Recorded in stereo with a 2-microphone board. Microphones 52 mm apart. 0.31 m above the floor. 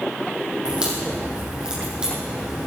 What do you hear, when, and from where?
0.7 s a crack: 20° right (ahead or behind), 6 m